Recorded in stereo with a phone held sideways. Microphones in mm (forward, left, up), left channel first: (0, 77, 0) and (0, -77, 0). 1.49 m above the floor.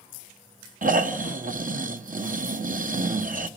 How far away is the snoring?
About 1.1 m.